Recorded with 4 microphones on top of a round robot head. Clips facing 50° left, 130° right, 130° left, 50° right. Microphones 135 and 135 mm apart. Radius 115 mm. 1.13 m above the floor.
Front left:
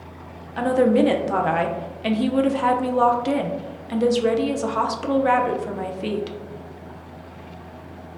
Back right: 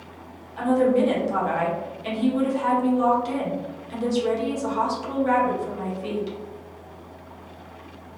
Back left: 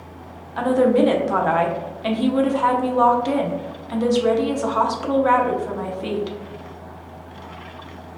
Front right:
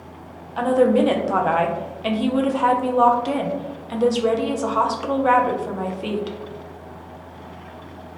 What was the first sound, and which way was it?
A woman speaking, 35° left.